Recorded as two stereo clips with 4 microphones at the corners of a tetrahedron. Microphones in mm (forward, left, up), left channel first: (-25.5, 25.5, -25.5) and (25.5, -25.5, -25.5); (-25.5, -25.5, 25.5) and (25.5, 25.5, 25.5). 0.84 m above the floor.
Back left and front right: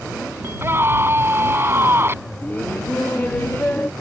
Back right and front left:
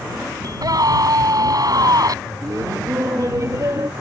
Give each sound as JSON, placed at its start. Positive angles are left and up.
{"t": 0.4, "sound": "a scream", "azimuth_deg": 15}
{"t": 2.4, "sound": "laughter", "azimuth_deg": 75}